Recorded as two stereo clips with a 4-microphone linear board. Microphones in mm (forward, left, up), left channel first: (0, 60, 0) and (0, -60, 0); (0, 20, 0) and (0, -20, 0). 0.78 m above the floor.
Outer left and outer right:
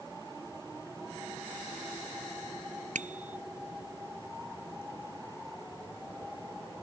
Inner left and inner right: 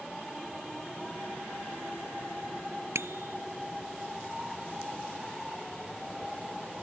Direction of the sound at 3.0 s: 75° right (ahead or behind).